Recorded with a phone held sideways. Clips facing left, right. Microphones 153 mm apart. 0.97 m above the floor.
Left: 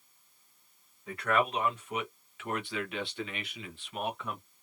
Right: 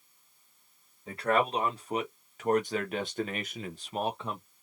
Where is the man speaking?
30° right (ahead or behind), 1.6 m; by 4.4 s 25° right (ahead or behind), 0.8 m.